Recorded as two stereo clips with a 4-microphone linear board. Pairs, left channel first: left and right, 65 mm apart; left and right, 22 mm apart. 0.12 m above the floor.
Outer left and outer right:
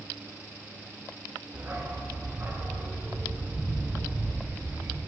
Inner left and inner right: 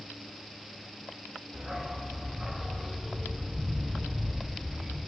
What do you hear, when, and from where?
1.5 s a dog barking: 30° right (ahead or behind), 3 m